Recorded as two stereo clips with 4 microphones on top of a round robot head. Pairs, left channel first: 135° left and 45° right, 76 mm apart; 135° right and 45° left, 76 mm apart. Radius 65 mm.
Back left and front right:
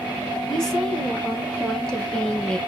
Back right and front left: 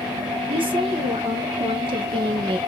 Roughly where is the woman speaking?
Ahead left.